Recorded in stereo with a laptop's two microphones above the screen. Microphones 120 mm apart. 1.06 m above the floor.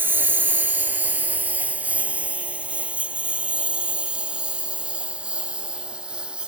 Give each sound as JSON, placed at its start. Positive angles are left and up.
{"t": 0.0, "sound": "a lawn mower", "side_deg": -15}